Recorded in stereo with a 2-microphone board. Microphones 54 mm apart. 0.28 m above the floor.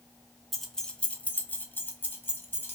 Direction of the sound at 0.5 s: Centre (ahead or behind).